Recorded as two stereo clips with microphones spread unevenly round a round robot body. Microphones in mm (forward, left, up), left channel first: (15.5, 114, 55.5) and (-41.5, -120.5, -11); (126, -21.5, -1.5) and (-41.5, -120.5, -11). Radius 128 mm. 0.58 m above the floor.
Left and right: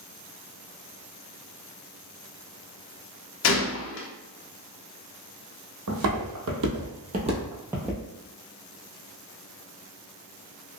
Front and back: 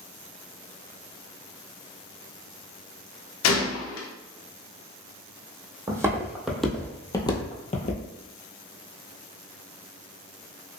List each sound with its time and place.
3.4 s a gunshot: 30° left, 0.5 m
5.9 s footsteps: 75° right, 1.2 m; by 8.0 s straight ahead, 0.9 m